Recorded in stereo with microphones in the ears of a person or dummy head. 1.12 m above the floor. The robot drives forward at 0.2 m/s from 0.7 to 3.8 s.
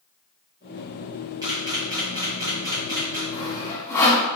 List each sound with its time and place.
1.4 s a camera shutter: 15° right (ahead or behind), 0.8 m; by 3.2 s 10° right (ahead or behind), 1.1 m
3.3 s sawing: 15° left (ahead or behind), 0.7 m